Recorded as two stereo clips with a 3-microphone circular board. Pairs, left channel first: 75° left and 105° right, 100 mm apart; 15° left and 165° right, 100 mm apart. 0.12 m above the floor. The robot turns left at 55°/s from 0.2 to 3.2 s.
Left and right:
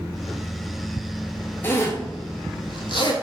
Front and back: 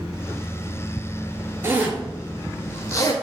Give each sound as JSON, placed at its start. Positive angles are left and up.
{"t": 1.6, "sound": "a zipper", "azimuth_deg": 140, "distance_m": 0.5}